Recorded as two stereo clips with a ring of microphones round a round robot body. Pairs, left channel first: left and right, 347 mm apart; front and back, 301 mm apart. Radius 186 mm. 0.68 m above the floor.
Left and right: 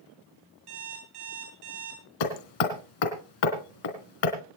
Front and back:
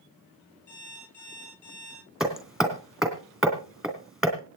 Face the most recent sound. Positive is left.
turn(degrees=90)